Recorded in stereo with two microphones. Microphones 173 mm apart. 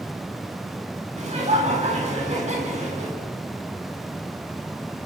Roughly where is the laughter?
Right.